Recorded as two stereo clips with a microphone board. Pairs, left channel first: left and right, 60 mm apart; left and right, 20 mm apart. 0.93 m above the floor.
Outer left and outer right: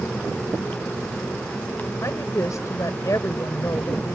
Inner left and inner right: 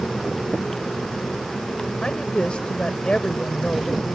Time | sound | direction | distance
2.0 | a woman speaking | 60° left (ahead or behind) | ?